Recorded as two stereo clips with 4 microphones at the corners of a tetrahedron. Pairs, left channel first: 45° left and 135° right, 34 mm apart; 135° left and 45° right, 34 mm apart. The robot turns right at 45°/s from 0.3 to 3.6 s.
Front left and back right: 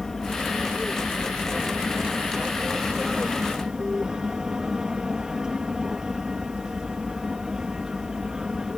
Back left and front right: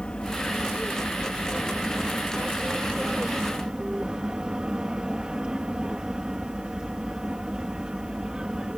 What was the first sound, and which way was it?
An aircraft, 125° left.